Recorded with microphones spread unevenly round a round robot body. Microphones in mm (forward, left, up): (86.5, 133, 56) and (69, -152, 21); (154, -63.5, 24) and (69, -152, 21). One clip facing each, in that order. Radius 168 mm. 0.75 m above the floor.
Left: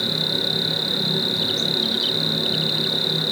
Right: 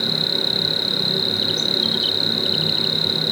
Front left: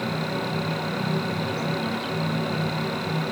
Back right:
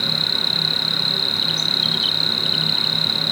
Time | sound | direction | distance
0.0 | an insect | 175° left | ?